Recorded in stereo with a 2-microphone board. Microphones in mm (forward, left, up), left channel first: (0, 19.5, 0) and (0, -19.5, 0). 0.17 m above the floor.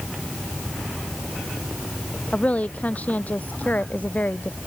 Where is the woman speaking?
35° left (ahead or behind); by 4.6 s 50° left (ahead or behind).